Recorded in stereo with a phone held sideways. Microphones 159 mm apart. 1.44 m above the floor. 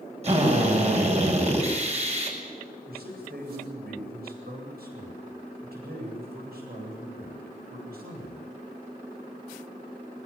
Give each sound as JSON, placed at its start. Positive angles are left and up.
{"t": 0.2, "sound": "a drill", "side_deg": -45, "distance_m": 6.5}
{"t": 2.9, "sound": "a man speaking", "side_deg": -85, "distance_m": 8.5}